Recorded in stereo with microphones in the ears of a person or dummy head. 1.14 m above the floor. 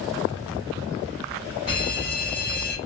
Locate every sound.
1.7 s an alarm: 55° right (ahead or behind), 3.5 m